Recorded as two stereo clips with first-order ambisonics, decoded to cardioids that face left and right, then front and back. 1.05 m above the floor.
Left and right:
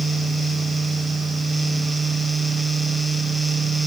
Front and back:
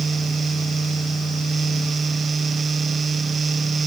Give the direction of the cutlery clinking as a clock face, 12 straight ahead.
No cutlery clinking in this recording.